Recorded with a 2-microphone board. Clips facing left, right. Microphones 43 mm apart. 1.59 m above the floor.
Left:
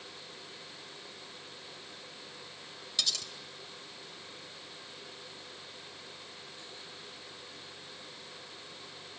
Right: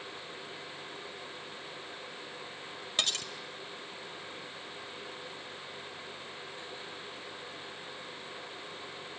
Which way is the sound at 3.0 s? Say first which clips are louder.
Right 3 dB; 40° right (ahead or behind).